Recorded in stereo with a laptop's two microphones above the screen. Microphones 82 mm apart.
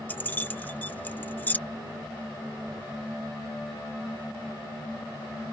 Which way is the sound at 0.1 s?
20° left (ahead or behind).